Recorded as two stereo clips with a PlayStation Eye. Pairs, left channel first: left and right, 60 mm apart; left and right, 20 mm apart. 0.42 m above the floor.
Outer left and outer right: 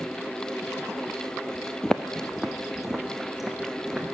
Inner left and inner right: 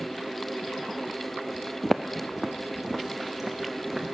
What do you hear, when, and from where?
1.8 s footsteps: 10° left (ahead or behind), 0.5 m; by 4.1 s 10° right (ahead or behind), 2 m